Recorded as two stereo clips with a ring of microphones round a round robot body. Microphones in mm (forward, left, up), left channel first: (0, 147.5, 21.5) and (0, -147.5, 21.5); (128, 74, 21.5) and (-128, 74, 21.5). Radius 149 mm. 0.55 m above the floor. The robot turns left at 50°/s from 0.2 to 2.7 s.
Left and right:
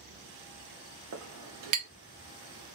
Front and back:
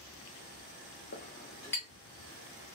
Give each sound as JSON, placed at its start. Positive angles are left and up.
{"t": 1.1, "sound": "a clink", "azimuth_deg": -50, "distance_m": 0.8}